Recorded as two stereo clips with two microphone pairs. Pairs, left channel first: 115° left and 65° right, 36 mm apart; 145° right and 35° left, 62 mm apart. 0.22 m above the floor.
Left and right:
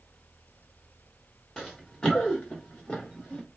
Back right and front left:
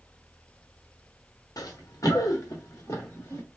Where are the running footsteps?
165° right, 1.3 m; by 3.4 s 170° left, 3 m.